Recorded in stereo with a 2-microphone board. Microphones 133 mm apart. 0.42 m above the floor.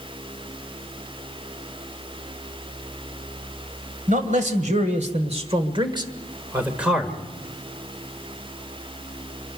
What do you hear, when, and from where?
4.1 s a man speaking: 65° right (ahead or behind), 2.5 m; by 7.2 s 5° left (ahead or behind), 1.7 m